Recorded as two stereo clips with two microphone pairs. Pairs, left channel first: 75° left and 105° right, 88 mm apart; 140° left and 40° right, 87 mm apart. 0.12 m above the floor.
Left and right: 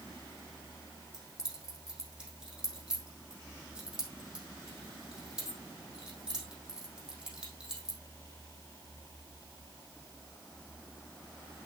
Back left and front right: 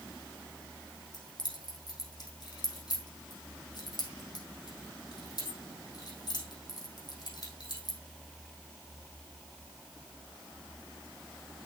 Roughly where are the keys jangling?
Behind.